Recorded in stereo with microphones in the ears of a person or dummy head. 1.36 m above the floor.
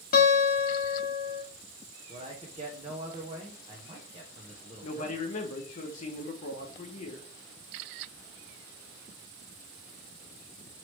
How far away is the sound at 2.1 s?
About 0.7 m.